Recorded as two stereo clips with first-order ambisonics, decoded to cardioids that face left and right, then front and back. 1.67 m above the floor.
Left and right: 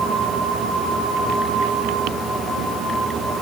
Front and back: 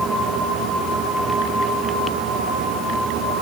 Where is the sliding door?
I don't hear a sliding door.